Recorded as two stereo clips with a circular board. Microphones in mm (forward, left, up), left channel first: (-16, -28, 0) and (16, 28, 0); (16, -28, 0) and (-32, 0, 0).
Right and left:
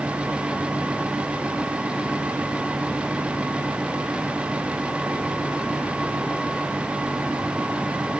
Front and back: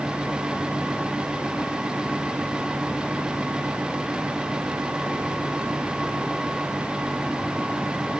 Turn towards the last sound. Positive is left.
No sound to turn to.